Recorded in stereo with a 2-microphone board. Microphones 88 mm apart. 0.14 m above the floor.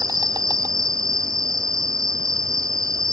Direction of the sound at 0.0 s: 40° right (ahead or behind).